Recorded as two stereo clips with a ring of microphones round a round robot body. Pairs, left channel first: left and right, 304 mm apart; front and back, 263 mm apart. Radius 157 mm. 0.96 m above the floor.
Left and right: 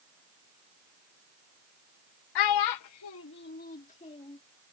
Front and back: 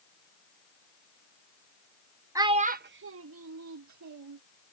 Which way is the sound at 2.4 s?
100° left.